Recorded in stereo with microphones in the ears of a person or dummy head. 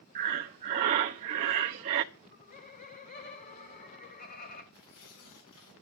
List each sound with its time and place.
0.1 s breathing: 25° right (ahead or behind), 0.6 m
2.1 s laughter: 40° left (ahead or behind), 2.5 m
4.7 s tearing paper: 65° left (ahead or behind), 6 m